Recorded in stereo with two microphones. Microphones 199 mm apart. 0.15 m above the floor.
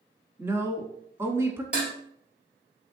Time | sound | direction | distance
0.4 | a woman speaking | 15° right (ahead or behind) | 1.0 m
1.7 | dishes clattering | 5° right (ahead or behind) | 2.0 m